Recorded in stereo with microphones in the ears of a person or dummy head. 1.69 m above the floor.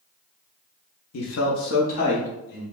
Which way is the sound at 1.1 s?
75° left (ahead or behind).